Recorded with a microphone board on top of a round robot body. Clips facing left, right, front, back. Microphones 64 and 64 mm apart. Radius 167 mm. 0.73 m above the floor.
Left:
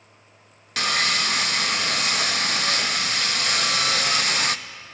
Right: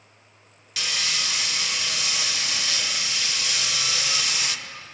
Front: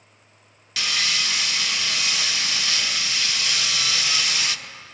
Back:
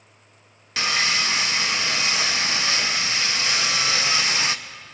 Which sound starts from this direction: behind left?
Sawing, at 0.8 s.